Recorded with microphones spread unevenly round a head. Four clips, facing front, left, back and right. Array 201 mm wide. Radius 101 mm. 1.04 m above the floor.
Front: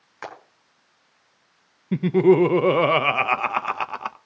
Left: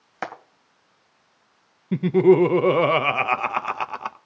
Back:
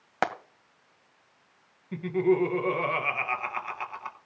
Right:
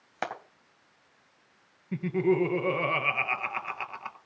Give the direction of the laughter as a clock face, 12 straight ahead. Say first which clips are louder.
Left 10 dB, front 8 dB; 11 o'clock.